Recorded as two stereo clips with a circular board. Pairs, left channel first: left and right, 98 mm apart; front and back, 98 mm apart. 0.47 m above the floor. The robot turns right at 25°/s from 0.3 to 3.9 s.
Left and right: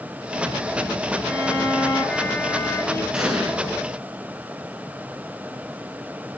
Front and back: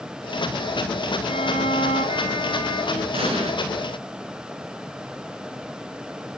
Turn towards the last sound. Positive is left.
turn(degrees=-160)